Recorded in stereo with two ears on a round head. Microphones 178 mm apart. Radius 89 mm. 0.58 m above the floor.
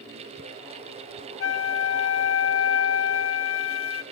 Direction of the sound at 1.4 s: 65° left (ahead or behind).